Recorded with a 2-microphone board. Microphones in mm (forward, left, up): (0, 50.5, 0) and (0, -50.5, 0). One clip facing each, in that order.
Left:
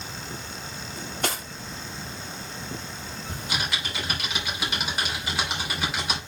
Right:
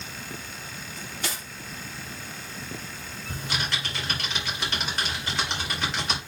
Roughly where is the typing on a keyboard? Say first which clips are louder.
Even; centre.